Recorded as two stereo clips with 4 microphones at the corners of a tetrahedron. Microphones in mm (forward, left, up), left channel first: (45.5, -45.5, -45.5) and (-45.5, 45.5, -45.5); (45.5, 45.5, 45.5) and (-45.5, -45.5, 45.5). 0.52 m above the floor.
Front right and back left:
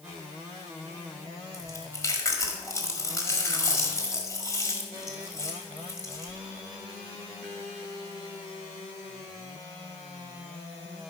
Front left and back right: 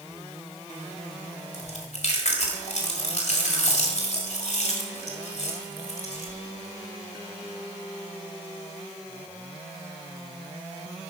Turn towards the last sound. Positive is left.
turn(degrees=20)